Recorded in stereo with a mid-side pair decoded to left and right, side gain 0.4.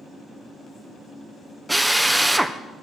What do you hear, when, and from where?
1.7 s a drill: 5° right, 1.1 m